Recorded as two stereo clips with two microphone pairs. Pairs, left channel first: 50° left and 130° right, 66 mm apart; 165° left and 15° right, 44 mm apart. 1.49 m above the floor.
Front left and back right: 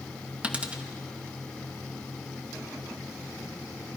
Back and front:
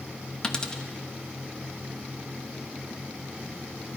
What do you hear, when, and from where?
0.4 s a dropped coin: 165° right, 0.8 m